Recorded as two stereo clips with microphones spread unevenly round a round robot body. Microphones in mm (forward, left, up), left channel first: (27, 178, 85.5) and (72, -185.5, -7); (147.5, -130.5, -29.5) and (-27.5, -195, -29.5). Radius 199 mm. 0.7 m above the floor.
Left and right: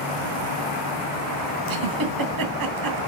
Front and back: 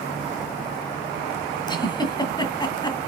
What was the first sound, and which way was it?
A giggle, 50° right.